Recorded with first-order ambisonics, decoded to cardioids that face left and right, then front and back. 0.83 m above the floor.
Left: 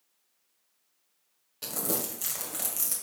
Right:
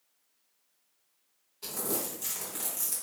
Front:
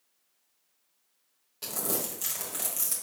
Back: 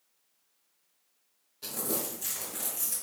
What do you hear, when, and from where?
1.6 s crumpling: 55° left, 1.5 m